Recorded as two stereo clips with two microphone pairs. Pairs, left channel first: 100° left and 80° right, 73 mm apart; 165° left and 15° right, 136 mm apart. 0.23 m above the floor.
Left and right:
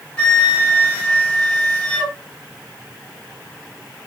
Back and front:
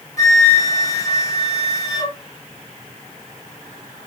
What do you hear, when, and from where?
0.2 s a flute: 150° left, 0.7 m